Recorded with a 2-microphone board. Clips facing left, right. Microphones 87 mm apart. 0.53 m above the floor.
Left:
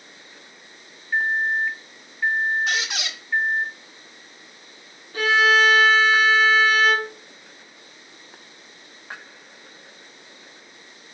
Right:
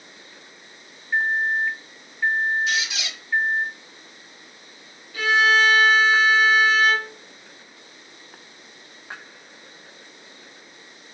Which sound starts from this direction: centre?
A microwave, at 1.1 s.